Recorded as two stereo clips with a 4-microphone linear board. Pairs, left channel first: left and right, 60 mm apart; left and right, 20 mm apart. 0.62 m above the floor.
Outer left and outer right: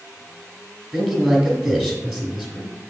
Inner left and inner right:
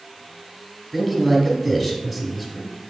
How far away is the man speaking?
About 1.3 m.